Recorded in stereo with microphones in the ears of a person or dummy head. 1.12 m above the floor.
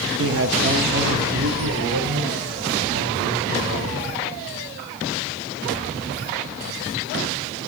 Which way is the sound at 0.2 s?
60° right (ahead or behind).